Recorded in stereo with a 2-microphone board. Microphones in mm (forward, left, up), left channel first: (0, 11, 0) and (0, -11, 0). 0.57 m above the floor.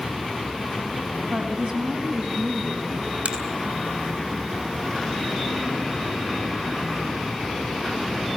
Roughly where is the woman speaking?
Right.